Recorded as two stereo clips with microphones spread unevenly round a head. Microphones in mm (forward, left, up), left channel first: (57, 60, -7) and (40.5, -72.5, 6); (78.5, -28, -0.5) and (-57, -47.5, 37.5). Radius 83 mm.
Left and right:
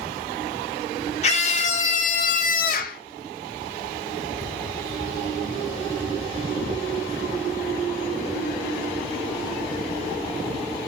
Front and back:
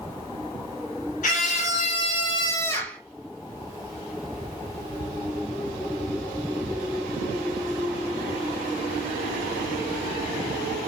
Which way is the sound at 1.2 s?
45° left.